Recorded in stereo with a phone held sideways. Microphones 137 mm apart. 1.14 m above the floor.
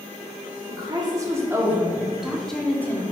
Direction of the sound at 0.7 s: 30° right (ahead or behind).